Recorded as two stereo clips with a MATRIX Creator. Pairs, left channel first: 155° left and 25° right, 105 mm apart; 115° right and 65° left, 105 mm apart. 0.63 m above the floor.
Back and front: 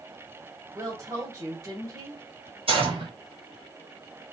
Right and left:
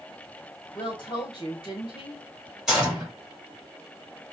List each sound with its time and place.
0.8 s a woman speaking: 75° right, 1.9 m
2.7 s a gunshot: 20° right, 2.5 m